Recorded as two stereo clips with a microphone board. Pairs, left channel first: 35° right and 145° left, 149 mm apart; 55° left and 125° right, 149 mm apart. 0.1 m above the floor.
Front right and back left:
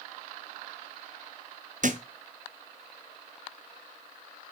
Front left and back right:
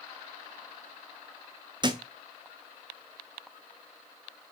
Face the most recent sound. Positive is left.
turn(degrees=175)